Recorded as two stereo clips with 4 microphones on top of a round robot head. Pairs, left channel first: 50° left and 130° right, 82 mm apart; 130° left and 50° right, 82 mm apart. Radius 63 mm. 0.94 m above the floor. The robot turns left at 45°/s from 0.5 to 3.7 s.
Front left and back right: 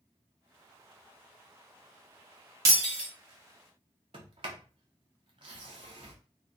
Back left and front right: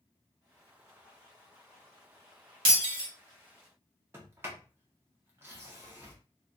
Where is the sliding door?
110° right, 0.5 m.